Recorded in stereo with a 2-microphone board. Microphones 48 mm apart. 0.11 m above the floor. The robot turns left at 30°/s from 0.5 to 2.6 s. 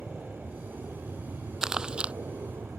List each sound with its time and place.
0.0 s an aircraft: 45° right; by 2.8 s 105° right
1.6 s crumpling: 10° right (ahead or behind); by 2.1 s 25° right (ahead or behind)